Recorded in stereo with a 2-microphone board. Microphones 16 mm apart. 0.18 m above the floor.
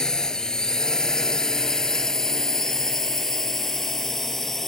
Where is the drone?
50° left (ahead or behind); by 4.7 s 20° left (ahead or behind).